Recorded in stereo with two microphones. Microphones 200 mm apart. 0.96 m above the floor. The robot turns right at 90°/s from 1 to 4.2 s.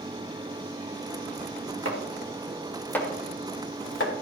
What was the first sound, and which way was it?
Chopping, 85° right.